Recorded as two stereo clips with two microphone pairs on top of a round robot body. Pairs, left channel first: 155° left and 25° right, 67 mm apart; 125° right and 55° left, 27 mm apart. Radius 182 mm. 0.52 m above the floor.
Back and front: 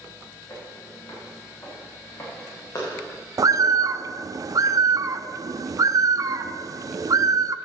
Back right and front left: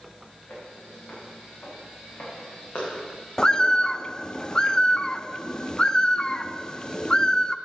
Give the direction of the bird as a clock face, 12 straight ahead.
2 o'clock.